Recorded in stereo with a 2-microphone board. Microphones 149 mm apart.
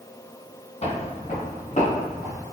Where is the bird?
I don't hear a bird.